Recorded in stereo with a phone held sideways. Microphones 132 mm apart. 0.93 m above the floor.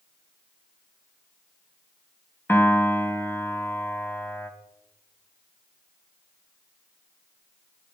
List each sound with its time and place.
2.5 s a piano: 15° left (ahead or behind), 1.5 m